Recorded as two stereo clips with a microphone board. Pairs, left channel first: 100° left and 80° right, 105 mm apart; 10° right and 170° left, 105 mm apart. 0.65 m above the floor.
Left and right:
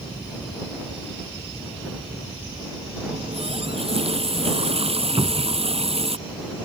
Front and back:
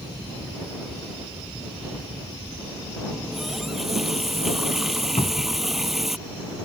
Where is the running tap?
105° right.